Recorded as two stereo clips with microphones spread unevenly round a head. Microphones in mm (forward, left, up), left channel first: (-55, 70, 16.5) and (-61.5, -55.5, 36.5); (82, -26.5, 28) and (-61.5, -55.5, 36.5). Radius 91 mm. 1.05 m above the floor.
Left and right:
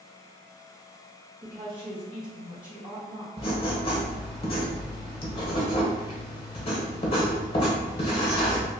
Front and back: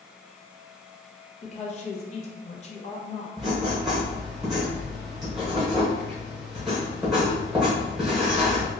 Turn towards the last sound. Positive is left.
turn(degrees=110)